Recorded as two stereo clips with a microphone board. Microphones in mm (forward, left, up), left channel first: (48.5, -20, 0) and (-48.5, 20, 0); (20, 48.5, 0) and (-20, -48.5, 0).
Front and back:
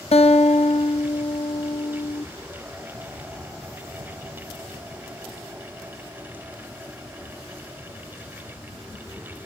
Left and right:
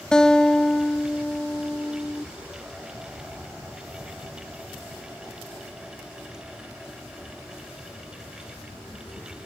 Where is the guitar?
15° right, 1.1 m.